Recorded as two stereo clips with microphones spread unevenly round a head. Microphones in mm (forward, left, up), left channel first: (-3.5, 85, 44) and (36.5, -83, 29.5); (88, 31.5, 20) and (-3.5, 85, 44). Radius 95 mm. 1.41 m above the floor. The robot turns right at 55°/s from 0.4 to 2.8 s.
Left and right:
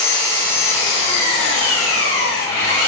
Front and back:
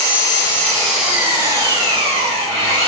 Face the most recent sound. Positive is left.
turn(degrees=165)